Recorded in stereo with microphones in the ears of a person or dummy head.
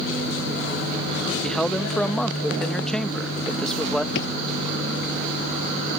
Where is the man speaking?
Centre (ahead or behind).